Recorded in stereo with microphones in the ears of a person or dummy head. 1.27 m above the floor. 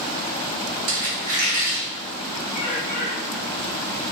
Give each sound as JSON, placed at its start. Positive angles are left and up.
{"t": 0.9, "sound": "a squeak", "side_deg": -40, "distance_m": 1.0}
{"t": 2.5, "sound": "a bird", "side_deg": 45, "distance_m": 0.8}